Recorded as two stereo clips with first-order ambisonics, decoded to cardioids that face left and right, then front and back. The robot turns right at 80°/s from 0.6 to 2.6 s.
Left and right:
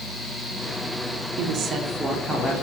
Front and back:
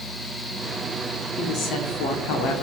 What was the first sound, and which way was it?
A woman speaking, 60° right.